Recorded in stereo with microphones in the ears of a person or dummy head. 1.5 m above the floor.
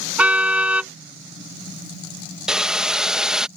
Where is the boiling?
10° right (ahead or behind).